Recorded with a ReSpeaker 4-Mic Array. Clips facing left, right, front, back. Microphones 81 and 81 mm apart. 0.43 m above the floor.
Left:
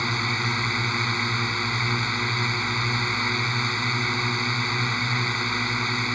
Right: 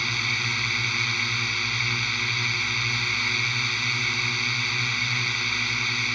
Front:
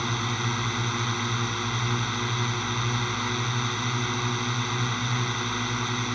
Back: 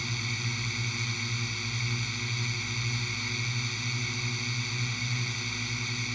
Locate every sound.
0.0 s a drone: 30° left